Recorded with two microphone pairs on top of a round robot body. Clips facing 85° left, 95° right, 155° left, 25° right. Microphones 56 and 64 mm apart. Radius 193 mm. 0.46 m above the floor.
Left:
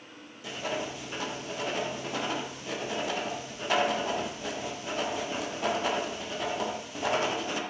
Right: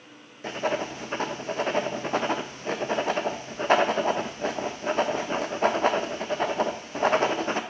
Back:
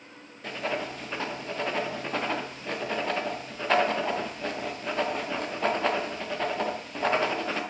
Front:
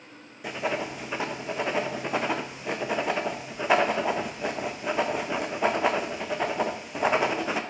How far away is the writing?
About 0.5 m.